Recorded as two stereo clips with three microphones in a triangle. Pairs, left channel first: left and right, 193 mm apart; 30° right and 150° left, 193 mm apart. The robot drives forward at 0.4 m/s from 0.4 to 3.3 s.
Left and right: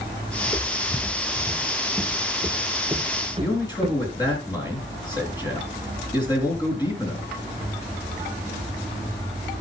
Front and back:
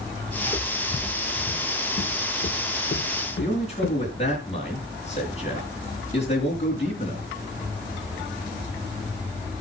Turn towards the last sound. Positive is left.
turn(degrees=25)